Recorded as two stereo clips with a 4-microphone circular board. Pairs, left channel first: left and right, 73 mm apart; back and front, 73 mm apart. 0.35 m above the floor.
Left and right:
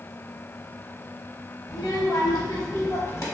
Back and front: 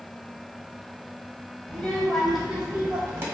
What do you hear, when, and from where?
1.7 s a child speaking: 110° left, 1.2 m; by 3.2 s 50° left, 1.1 m